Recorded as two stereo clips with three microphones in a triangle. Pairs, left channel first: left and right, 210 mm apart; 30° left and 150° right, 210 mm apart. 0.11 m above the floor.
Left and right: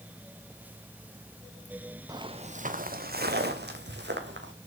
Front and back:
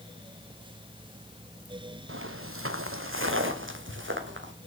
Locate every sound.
2.1 s footsteps: 165° right, 0.8 m; by 4.5 s 120° right, 3 m